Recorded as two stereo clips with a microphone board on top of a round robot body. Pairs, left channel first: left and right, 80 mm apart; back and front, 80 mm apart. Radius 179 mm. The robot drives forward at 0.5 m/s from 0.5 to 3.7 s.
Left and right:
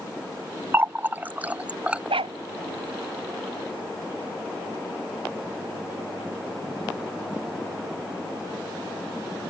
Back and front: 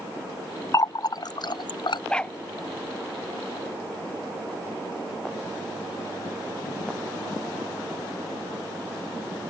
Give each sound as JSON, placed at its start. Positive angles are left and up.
{"t": 0.7, "sound": "a running tap", "azimuth_deg": -145}
{"t": 2.1, "sound": "a dog barking", "azimuth_deg": -100}